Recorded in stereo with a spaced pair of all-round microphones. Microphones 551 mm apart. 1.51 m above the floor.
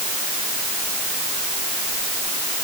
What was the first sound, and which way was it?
Only background noise.